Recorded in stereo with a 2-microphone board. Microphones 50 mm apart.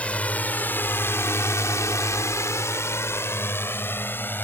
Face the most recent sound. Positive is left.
turn(degrees=40)  # may be behind; listen again after turning